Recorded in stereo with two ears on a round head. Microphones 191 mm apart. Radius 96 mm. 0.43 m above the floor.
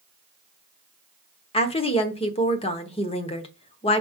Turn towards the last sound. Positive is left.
turn(degrees=25)  # may be behind; listen again after turning